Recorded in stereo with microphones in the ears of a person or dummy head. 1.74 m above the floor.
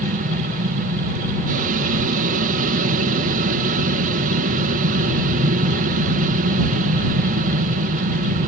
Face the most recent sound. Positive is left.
turn(degrees=-45)  # may be behind; listen again after turning